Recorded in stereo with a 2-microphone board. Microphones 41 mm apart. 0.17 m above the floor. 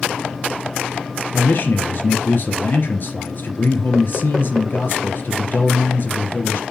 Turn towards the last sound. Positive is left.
turn(degrees=55)  # may be behind; listen again after turning